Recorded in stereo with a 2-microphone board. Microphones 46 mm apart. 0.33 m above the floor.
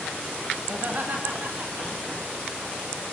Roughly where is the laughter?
Right.